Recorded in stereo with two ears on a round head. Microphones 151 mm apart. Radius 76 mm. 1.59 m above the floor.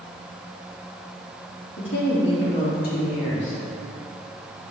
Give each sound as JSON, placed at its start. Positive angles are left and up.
{"t": 1.8, "sound": "a woman speaking", "side_deg": 75, "distance_m": 2.5}